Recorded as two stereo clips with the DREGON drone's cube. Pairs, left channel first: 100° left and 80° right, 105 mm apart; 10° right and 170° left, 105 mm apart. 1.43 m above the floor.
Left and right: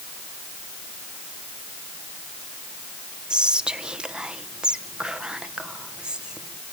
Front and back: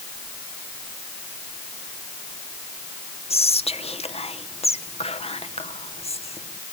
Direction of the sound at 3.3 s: Straight ahead.